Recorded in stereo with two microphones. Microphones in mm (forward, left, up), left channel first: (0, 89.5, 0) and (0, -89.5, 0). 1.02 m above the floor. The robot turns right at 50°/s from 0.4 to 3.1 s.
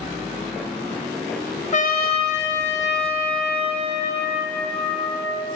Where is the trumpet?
45° left, 0.8 m; by 5.5 s 115° left, 0.8 m.